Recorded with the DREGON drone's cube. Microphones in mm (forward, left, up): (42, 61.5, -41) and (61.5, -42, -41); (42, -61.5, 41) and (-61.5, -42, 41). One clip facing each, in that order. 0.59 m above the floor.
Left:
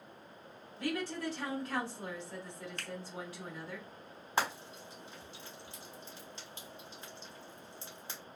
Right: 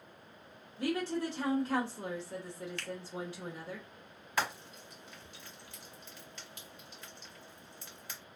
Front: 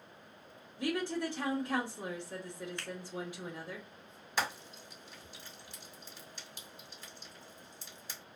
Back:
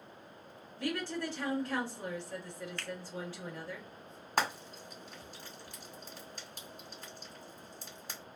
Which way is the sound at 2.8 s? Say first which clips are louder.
Right 4 dB, back 1 dB; 60° left.